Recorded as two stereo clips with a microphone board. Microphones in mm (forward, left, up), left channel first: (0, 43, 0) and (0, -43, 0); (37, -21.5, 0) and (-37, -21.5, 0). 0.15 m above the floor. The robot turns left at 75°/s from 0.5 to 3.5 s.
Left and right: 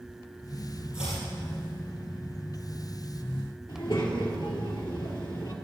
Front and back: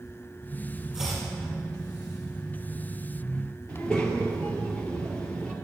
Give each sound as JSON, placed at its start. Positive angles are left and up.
{"t": 0.9, "sound": "chopping", "azimuth_deg": 105, "distance_m": 4.5}
{"t": 3.7, "sound": "a child speaking", "azimuth_deg": 75, "distance_m": 2.5}